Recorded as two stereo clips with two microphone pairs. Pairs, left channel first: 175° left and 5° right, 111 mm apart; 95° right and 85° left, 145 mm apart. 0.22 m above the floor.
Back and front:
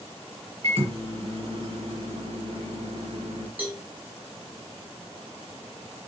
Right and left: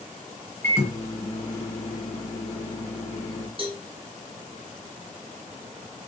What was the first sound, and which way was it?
A microwave, 25° right.